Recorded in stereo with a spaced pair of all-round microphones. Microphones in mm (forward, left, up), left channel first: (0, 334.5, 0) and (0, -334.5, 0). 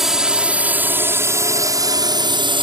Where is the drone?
Centre (ahead or behind); by 2.6 s 5° right (ahead or behind).